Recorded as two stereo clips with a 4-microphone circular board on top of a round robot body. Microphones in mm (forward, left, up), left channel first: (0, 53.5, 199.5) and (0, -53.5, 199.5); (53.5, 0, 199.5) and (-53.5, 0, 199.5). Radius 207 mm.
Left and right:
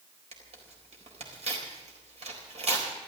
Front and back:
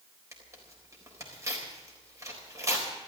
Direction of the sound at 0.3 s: 115° right.